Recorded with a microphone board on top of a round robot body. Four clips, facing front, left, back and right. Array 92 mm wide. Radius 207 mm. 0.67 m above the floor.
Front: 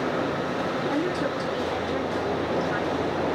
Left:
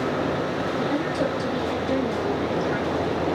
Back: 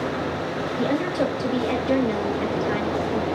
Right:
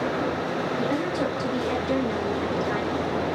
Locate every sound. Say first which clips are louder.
0.8 s a woman speaking: left 2 dB, back 6 dB; 175° right, 4.5 m